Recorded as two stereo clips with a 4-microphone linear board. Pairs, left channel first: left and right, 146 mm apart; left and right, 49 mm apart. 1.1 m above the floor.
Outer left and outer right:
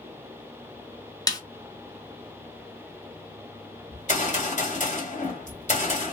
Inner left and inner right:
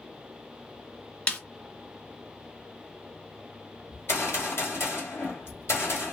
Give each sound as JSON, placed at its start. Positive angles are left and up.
{"t": 1.3, "sound": "a snare drum", "side_deg": 25, "distance_m": 0.8}
{"t": 3.9, "sound": "a gunshot", "side_deg": 55, "distance_m": 1.8}